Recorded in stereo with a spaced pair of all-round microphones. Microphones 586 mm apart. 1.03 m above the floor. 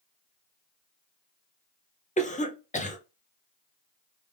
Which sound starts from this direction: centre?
A cough, at 2.2 s.